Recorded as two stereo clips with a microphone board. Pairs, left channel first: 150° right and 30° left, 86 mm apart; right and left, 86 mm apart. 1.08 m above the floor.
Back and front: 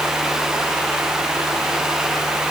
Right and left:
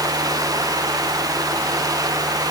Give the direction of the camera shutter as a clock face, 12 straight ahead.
No camera shutter in this recording.